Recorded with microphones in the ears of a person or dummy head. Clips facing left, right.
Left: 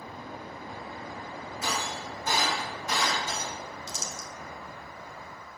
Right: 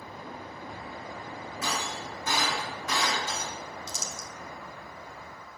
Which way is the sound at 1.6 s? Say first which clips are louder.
Even; 60° right (ahead or behind).